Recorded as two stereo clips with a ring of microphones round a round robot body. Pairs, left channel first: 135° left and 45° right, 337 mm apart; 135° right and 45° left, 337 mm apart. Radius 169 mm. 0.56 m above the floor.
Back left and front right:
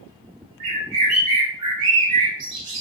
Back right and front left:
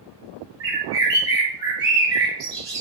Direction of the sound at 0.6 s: 30° right.